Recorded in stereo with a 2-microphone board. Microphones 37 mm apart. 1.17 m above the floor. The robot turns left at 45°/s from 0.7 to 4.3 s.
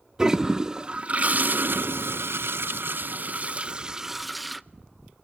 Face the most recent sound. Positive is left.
turn(degrees=180)